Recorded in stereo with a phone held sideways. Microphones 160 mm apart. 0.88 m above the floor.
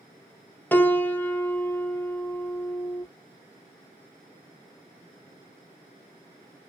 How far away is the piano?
About 0.5 m.